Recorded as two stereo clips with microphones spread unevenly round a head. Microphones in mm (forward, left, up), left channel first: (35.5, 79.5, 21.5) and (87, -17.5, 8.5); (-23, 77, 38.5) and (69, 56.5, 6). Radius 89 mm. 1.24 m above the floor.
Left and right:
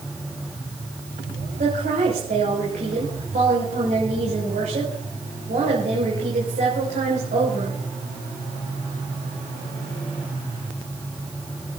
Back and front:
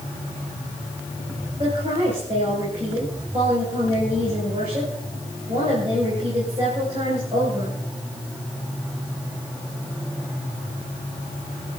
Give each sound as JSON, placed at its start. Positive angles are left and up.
{"t": 1.6, "sound": "a woman speaking", "azimuth_deg": -65, "distance_m": 6.5}